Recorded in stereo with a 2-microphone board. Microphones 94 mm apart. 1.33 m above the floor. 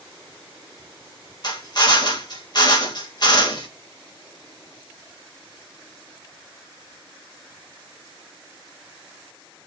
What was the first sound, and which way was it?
A drill, 45° left (ahead or behind).